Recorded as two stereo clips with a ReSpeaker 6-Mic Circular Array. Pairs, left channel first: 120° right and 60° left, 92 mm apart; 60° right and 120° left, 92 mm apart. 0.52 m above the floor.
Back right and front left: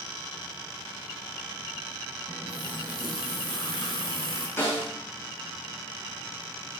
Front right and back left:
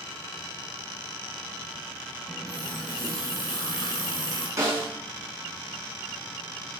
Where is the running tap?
85° right, 4.5 m.